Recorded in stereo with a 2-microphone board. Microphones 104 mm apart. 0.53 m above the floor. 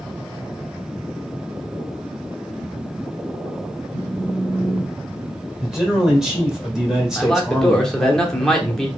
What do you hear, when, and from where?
3.9 s a phone buzzing: 10° right (ahead or behind), 1.8 m
5.6 s a man speaking: 5° right (ahead or behind), 1.6 m
7.2 s a man speaking: 5° left (ahead or behind), 1.0 m